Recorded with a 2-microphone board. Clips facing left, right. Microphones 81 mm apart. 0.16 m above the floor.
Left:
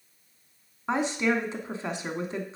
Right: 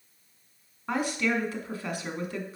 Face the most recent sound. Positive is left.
turn(degrees=25)  # may be behind; listen again after turning